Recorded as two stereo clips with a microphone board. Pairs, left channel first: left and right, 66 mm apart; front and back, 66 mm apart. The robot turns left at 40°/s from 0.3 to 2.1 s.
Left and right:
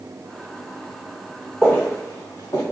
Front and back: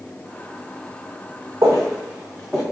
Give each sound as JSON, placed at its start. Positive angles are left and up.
{"t": 1.6, "sound": "footsteps", "azimuth_deg": 165, "distance_m": 1.1}